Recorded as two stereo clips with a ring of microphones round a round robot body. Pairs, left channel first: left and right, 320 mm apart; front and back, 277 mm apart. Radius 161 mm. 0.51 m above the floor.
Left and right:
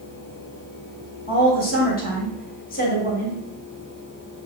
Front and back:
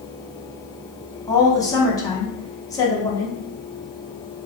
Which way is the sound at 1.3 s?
65° left.